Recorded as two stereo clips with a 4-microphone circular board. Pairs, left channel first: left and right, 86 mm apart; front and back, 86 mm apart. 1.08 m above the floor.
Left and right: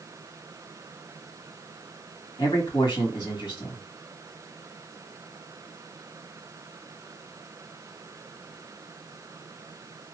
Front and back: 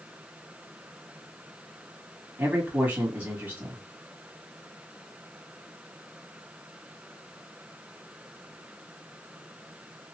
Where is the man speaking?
115° left, 2 m.